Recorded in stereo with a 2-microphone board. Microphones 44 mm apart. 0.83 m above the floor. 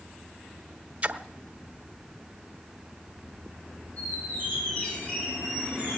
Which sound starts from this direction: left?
A squeak, at 4.0 s.